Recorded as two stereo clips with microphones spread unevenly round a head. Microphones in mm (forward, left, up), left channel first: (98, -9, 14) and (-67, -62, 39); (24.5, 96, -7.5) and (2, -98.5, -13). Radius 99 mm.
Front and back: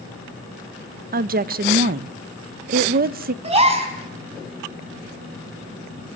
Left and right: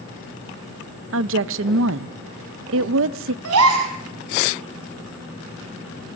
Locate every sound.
1.1 s a woman speaking: 125° right, 0.6 m
3.4 s a gasp: 110° right, 4 m